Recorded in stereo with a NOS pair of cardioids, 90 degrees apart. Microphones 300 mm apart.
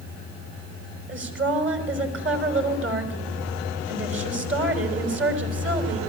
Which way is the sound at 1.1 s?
40° right.